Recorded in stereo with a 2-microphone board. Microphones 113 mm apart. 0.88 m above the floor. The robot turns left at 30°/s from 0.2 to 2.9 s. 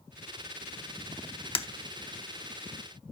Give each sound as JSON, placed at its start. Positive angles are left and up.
{"t": 1.6, "sound": "breaking glass", "side_deg": 55, "distance_m": 0.6}